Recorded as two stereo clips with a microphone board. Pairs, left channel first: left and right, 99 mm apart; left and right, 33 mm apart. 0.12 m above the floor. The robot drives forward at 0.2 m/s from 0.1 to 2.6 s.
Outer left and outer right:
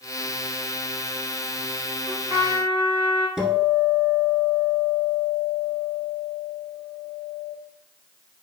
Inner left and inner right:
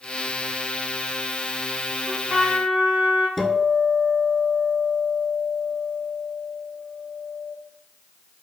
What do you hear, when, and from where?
2.1 s a trumpet: 35° right (ahead or behind), 1.4 m
3.4 s a guitar: 5° right (ahead or behind), 0.7 m